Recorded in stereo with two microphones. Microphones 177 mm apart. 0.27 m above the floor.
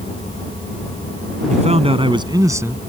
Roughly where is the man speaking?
Right.